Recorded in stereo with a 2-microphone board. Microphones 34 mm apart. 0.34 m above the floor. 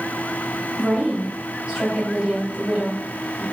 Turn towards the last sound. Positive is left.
turn(degrees=-25)  # may be behind; listen again after turning